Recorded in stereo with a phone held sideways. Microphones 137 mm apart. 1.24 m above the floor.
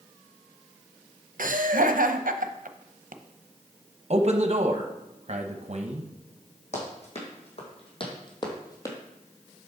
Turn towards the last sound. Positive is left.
turn(degrees=20)  # may be behind; listen again after turning